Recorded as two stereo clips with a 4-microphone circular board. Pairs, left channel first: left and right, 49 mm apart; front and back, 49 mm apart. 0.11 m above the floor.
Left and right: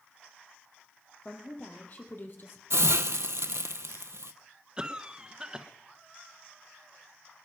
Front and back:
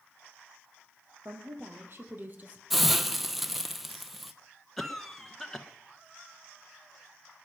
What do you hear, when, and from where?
1.2 s a woman speaking: 150° left, 3.5 m; by 2.6 s 125° left, 2.5 m
2.7 s a hiss: 95° right, 0.8 m
4.8 s a cough: 75° right, 1.1 m